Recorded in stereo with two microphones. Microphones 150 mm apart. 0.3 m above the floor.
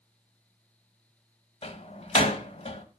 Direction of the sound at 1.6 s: 45° left (ahead or behind).